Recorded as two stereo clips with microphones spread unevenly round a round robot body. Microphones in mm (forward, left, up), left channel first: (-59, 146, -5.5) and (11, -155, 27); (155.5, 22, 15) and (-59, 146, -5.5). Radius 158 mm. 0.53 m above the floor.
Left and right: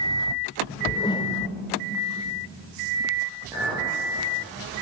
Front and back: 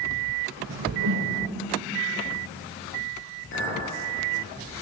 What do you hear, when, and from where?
0.7 s a whoosh: 175° left, 1.4 m
3.5 s a clink: 5° left, 8 m